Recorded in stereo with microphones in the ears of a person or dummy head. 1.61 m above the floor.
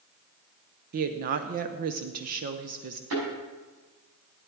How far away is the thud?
About 6.5 m.